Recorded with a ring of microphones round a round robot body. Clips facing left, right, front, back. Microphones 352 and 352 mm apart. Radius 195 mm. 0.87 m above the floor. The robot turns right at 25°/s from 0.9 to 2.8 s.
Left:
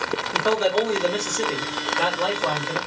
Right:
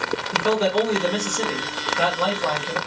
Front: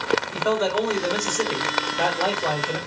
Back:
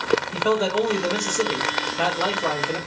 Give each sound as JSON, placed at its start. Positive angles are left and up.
{"t": 0.3, "sound": "a man speaking", "azimuth_deg": -135, "distance_m": 1.5}